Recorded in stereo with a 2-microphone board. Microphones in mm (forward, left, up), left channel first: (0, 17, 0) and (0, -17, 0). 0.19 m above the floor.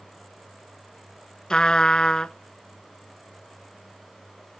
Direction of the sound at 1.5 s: 25° left (ahead or behind).